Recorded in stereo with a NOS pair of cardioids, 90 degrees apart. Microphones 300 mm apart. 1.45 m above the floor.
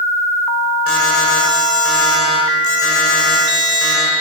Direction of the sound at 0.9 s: 45° left.